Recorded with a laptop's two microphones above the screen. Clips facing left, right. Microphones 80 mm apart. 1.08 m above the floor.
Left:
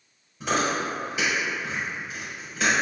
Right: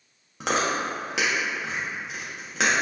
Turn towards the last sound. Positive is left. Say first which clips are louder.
# even
turn(degrees=-65)  # may be behind; listen again after turning